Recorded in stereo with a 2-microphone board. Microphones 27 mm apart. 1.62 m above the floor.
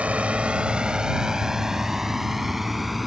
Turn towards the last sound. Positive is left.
turn(degrees=-5)  # may be behind; listen again after turning